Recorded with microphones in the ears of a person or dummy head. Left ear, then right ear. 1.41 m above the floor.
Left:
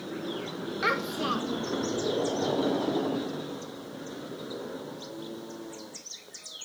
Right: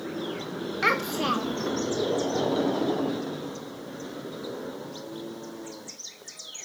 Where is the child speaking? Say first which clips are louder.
Right 4 dB; 10° right (ahead or behind), 0.8 m.